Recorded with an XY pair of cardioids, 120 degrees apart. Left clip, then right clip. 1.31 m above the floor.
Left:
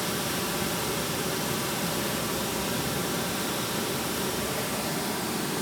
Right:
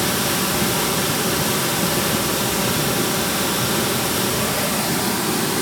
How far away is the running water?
About 1.1 m.